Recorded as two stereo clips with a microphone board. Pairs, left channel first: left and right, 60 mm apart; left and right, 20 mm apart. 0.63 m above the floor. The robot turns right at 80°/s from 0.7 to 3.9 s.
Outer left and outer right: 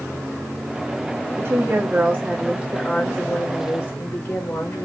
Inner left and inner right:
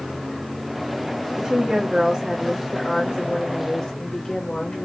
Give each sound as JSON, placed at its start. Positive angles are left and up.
{"t": 1.4, "sound": "a woman speaking", "azimuth_deg": -115, "distance_m": 1.5}